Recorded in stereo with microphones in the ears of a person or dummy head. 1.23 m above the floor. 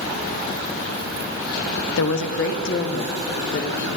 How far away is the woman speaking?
About 0.7 m.